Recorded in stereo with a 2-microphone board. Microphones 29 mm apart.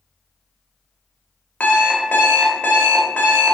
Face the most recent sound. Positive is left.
turn(degrees=70)  # may be behind; listen again after turning